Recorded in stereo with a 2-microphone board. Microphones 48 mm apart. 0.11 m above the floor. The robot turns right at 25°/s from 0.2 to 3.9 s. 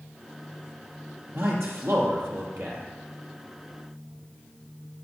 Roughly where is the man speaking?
Right.